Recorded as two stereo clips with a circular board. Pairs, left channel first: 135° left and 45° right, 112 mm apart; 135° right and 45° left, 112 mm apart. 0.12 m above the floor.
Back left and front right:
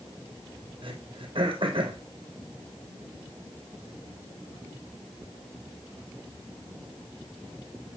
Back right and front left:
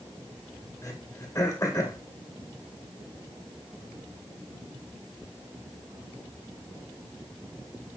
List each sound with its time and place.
0.8 s throat clearing: 75° right, 2 m